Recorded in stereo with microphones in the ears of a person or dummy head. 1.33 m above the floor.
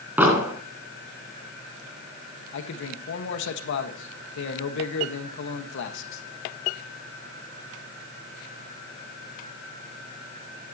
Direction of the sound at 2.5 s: 70° left (ahead or behind).